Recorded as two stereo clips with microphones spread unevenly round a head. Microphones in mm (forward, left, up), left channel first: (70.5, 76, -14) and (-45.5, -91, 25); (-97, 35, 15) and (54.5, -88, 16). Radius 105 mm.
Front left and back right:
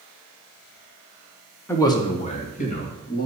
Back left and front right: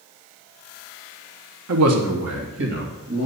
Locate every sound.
1.7 s a man speaking: 25° right, 1.5 m; by 3.3 s 5° left, 3 m